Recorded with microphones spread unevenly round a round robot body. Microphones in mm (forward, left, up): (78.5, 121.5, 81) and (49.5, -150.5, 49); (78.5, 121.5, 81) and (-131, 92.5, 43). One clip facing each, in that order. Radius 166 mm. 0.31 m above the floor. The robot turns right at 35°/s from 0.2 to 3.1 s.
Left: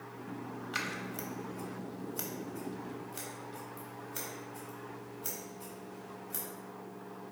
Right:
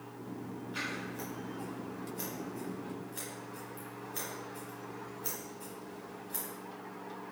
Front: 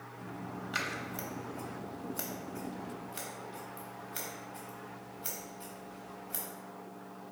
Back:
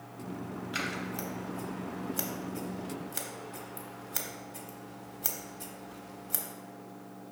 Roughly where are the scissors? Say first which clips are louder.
Right 1 dB, back 4 dB; left.